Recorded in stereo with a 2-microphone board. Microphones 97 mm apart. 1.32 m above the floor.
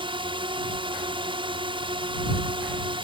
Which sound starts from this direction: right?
A drone, at 0.0 s.